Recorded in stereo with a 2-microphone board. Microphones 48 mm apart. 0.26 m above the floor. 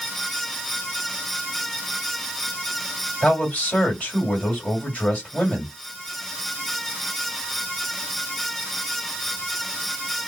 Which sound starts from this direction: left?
A man speaking, at 3.2 s.